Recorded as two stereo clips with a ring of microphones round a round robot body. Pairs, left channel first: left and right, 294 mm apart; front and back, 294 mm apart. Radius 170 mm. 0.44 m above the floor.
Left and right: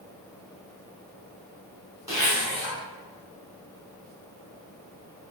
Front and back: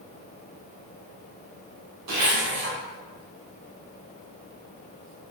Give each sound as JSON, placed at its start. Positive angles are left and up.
{"t": 2.1, "sound": "a zipper", "azimuth_deg": -170, "distance_m": 1.3}